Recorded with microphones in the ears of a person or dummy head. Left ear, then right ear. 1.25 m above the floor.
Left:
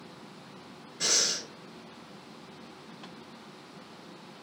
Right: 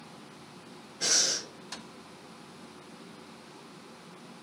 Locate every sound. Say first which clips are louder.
1.0 s breathing: even; 70° left (ahead or behind), 1.2 m